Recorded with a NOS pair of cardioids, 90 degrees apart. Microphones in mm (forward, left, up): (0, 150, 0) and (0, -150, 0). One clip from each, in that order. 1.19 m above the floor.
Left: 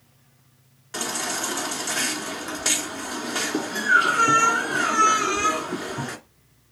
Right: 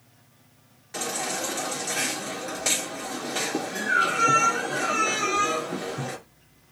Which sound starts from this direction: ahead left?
A baby crying, at 0.9 s.